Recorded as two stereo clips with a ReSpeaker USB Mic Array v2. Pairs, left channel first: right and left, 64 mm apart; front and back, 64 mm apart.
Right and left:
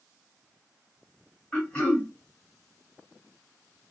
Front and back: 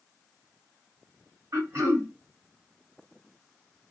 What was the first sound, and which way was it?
Throat clearing, 160° right.